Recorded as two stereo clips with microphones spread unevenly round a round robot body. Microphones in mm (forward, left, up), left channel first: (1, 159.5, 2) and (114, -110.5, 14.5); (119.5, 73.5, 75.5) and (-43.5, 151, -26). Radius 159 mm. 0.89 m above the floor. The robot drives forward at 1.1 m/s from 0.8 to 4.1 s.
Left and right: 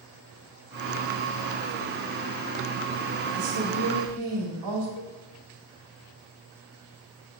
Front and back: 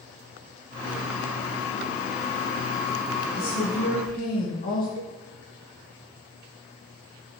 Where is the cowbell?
140° left, 1.2 m.